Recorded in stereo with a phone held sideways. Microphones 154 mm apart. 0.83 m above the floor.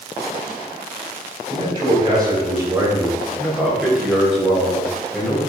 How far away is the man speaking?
About 4 m.